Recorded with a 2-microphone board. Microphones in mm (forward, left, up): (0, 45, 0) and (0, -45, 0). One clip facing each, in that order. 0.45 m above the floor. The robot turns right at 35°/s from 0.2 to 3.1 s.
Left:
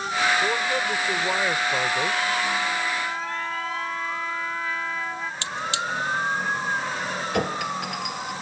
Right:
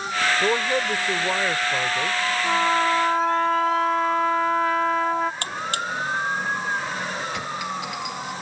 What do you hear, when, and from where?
0.4 s a man speaking: 40° right; by 2.2 s 25° left
2.4 s a trumpet: 50° right (ahead or behind)
5.4 s a buzzer: 45° right (ahead or behind)
7.3 s a clink: 50° left (ahead or behind)